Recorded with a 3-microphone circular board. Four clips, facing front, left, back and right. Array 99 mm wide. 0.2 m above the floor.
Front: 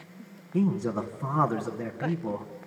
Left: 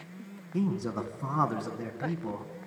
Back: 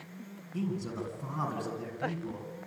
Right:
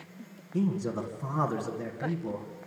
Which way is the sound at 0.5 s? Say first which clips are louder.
Right 1 dB, front 8 dB; 25° left.